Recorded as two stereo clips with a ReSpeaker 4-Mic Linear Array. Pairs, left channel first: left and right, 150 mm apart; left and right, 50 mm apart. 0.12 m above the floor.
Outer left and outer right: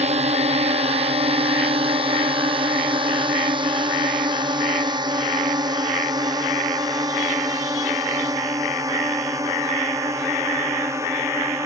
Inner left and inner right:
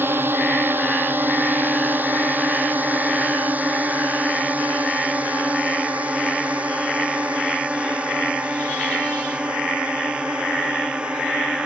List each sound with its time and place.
0.0 s a drone: 45° right (ahead or behind); by 11.7 s 20° right (ahead or behind)